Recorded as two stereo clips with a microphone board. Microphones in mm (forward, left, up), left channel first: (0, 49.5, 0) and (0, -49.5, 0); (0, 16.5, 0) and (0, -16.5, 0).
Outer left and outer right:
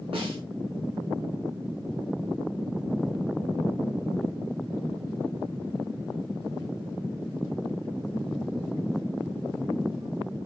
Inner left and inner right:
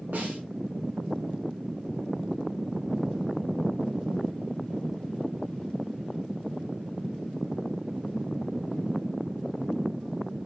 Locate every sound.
0.1 s a snare drum: 65° right (ahead or behind), 4.5 m